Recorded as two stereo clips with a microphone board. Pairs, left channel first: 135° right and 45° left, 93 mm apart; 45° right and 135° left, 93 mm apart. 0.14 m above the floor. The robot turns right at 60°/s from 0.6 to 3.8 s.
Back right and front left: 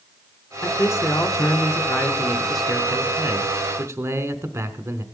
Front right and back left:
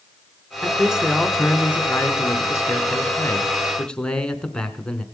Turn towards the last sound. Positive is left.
turn(degrees=30)